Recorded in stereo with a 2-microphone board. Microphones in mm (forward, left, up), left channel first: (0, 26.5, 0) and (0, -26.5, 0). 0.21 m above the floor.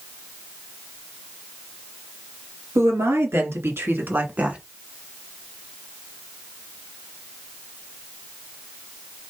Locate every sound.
2.8 s a woman speaking: 65° right (ahead or behind), 3 m; by 4.6 s 25° right (ahead or behind), 1.5 m